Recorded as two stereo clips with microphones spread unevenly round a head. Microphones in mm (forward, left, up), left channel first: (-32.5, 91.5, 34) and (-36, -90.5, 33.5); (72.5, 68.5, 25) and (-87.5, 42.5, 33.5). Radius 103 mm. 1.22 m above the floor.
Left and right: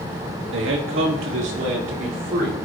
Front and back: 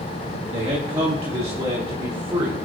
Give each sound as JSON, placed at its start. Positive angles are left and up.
{"t": 0.5, "sound": "a man speaking", "azimuth_deg": -105, "distance_m": 1.6}